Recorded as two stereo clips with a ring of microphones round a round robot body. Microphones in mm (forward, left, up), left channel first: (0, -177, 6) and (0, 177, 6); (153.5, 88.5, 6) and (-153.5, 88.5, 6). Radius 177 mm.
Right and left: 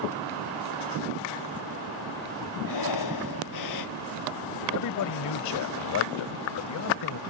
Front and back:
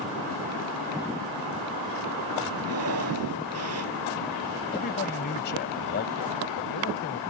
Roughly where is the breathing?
Behind right.